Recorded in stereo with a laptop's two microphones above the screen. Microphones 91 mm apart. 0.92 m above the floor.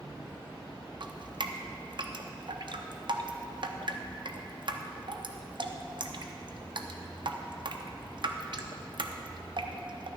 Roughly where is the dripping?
Right.